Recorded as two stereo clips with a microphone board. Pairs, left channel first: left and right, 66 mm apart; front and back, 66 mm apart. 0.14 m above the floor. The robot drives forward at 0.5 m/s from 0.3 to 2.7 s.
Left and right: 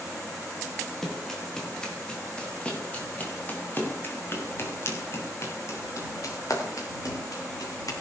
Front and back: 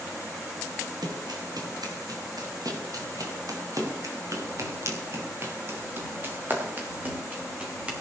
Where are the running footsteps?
175° left, 5 m; by 7.9 s 110° left, 6 m.